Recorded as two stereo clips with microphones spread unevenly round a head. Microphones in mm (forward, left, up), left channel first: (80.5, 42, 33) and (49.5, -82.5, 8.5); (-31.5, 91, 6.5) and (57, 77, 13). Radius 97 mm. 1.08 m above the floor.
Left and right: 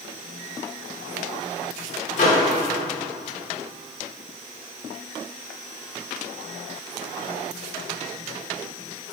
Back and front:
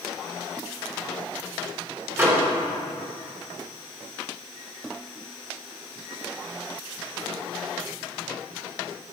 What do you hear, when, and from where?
2.2 s a microwave: 50° left, 3 m